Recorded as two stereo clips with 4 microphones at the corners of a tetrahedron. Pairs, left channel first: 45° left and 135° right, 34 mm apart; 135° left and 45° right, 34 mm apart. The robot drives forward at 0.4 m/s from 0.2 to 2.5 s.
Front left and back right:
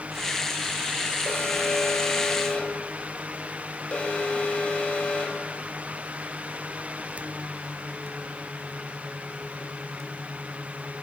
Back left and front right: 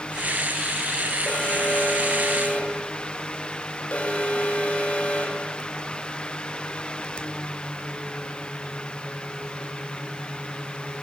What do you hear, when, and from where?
1.3 s an alarm: 95° left, 4 m; by 5.5 s 100° left, 4 m